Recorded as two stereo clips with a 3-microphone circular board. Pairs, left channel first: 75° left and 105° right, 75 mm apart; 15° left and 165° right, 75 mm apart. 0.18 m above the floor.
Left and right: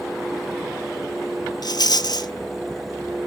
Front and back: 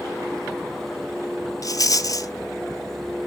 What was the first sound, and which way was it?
A rattle, 55° left.